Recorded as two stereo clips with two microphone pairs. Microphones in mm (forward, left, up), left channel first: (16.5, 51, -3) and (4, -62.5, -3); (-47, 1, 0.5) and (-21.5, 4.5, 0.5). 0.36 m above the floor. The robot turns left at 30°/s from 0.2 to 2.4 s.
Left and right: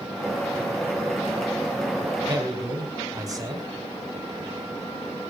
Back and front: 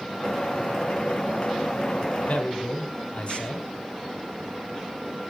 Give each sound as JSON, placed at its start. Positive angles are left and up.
{"t": 2.3, "sound": "a man speaking", "azimuth_deg": -150, "distance_m": 3.0}